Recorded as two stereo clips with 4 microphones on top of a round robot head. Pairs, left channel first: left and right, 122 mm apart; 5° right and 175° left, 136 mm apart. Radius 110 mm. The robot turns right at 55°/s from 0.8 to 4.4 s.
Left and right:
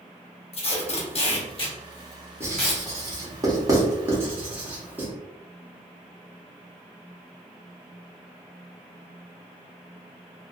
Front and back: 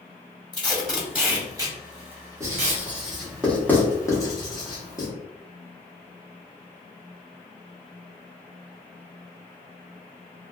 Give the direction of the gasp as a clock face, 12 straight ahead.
I don't hear a gasp.